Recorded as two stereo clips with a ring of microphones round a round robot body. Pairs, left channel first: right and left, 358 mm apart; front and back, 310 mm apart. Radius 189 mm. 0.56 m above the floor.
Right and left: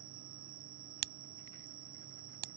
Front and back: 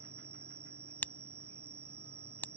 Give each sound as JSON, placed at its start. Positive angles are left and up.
{"t": 0.0, "sound": "an insect", "azimuth_deg": 135}
{"t": 1.0, "sound": "a crack", "azimuth_deg": 85}